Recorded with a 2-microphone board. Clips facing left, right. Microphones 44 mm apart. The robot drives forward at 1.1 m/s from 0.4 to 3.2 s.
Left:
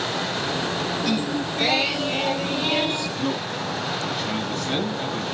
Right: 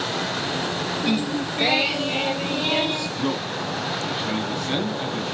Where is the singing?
25° right (ahead or behind), 0.6 m; by 3.1 s 5° right (ahead or behind), 3 m.